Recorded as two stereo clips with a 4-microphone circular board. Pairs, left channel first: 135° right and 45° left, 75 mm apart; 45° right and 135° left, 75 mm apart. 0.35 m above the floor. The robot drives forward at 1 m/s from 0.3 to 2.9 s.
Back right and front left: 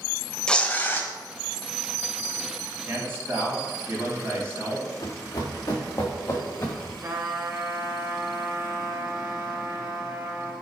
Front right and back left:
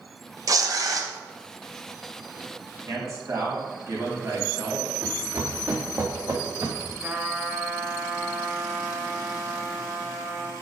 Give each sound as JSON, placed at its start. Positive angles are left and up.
{"t": 0.5, "sound": "tearing paper", "azimuth_deg": 150, "distance_m": 0.5}
{"t": 2.9, "sound": "a man speaking", "azimuth_deg": 100, "distance_m": 3.0}
{"t": 5.0, "sound": "running footsteps", "azimuth_deg": -165, "distance_m": 2.0}
{"t": 7.0, "sound": "a trumpet", "azimuth_deg": 80, "distance_m": 1.2}